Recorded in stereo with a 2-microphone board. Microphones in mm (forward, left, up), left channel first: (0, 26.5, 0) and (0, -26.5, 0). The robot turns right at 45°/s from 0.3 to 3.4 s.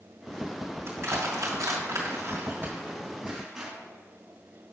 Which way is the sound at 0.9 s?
50° right (ahead or behind).